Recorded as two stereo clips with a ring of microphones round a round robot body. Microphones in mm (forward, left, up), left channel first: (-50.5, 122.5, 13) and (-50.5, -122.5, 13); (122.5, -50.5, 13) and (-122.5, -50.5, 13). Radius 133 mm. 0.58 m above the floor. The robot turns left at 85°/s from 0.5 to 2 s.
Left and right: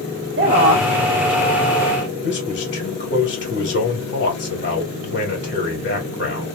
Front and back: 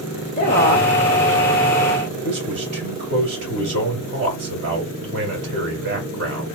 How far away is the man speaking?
About 2.5 m.